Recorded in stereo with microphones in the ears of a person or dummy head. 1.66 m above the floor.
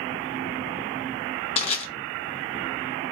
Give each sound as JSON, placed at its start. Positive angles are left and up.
{"t": 1.6, "sound": "crushing", "side_deg": 35, "distance_m": 0.8}